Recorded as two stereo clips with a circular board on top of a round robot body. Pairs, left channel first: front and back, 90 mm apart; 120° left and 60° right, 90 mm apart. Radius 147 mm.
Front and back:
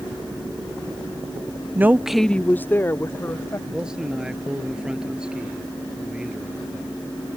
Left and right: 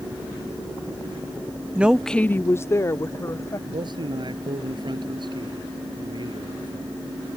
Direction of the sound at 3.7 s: 100° right.